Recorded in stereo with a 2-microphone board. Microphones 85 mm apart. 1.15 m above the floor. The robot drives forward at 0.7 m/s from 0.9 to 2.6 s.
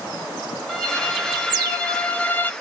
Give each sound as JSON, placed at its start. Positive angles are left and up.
{"t": 0.7, "sound": "a violin", "side_deg": 5, "distance_m": 1.5}